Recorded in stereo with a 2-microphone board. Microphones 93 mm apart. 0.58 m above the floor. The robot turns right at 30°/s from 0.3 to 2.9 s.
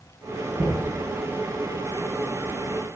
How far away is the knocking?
About 3 m.